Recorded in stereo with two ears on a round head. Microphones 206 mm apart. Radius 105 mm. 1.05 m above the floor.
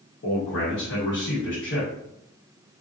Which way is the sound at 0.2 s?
55° left (ahead or behind).